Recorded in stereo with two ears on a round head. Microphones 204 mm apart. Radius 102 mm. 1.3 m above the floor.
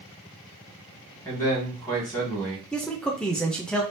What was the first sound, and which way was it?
A man speaking, 20° left (ahead or behind).